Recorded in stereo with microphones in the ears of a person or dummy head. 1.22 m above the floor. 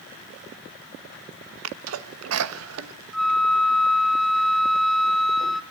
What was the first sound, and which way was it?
A sneeze, 85° right.